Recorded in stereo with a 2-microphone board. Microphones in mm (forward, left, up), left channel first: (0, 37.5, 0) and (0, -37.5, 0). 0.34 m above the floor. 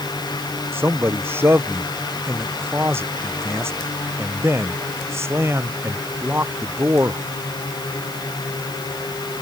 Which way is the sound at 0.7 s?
30° right (ahead or behind).